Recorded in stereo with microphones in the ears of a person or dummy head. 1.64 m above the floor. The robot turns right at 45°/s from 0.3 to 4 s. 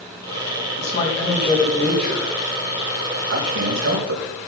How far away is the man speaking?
About 4 m.